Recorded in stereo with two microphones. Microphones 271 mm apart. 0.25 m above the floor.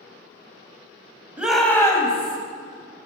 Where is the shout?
5° right (ahead or behind), 1.0 m; by 2.4 s 25° left (ahead or behind), 1.1 m.